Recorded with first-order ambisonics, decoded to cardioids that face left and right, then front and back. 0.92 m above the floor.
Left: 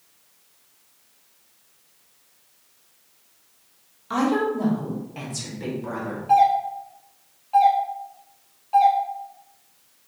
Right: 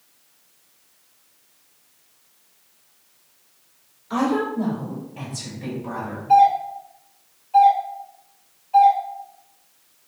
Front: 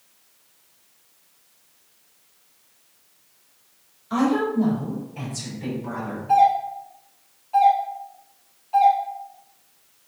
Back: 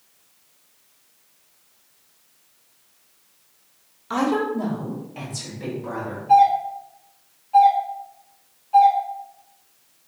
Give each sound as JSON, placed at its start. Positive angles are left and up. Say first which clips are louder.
{"t": 4.1, "sound": "a woman speaking", "louder": "even, even", "azimuth_deg": 150, "distance_m": 1.8}
{"t": 6.3, "sound": "a doorbell", "louder": "right 3 dB, back 2 dB", "azimuth_deg": 85, "distance_m": 2.0}